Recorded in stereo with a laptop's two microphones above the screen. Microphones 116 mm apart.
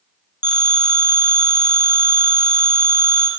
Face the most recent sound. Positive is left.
turn(degrees=35)  # may be behind; listen again after turning